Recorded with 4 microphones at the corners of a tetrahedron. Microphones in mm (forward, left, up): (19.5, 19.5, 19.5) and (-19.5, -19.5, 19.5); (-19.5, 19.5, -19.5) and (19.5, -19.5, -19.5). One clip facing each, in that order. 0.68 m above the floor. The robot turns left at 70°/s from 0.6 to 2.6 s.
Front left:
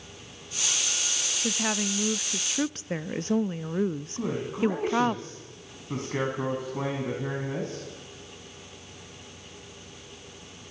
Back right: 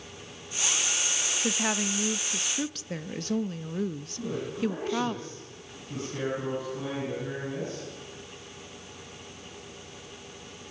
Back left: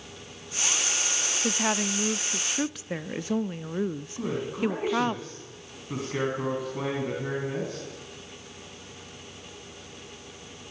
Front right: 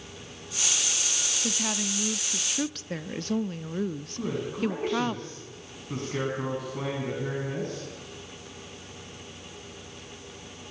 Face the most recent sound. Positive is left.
turn(degrees=55)